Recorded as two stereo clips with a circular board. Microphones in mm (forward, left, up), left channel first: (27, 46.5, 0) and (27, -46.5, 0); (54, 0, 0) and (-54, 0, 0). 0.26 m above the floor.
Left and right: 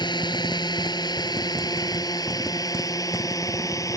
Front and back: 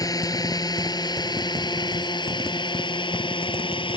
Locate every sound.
0.0 s a drone: 55° left; by 4.0 s 35° left